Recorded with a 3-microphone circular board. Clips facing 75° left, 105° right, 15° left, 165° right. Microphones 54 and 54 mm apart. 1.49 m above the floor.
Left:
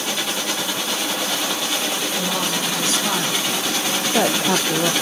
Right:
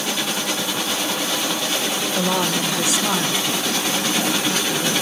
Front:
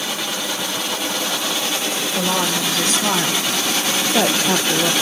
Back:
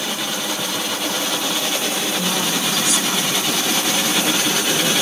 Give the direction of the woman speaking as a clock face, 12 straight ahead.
1 o'clock.